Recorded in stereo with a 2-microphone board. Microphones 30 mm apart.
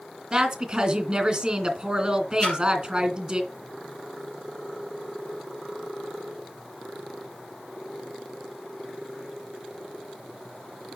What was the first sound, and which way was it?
A woman speaking, 30° right (ahead or behind).